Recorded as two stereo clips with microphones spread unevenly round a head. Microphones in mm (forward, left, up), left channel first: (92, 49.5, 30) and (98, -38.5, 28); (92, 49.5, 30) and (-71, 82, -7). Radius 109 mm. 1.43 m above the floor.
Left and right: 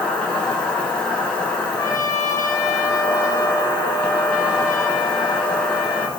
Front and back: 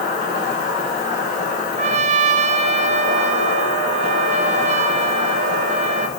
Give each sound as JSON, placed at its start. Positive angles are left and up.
{"t": 0.0, "sound": "an insect", "azimuth_deg": 20, "distance_m": 4.0}
{"t": 1.8, "sound": "a trumpet", "azimuth_deg": 150, "distance_m": 0.5}